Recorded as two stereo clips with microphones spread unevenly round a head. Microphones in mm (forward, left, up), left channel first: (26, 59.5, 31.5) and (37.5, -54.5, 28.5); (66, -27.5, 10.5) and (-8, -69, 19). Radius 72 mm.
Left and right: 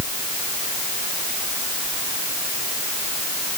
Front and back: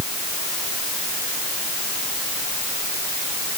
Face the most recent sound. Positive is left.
No sound to turn to.